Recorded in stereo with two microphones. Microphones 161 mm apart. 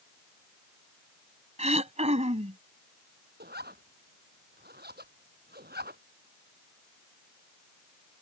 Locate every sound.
1.6 s throat clearing: 45° right (ahead or behind)
3.4 s a zipper: 85° right